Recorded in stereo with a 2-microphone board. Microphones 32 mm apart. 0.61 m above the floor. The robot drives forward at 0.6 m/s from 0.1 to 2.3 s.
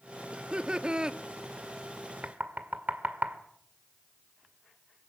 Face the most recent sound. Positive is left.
turn(degrees=-65)  # may be behind; listen again after turning